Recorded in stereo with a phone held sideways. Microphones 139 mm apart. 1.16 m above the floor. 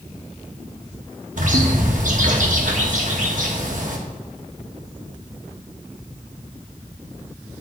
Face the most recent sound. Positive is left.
turn(degrees=-65)  # may be behind; listen again after turning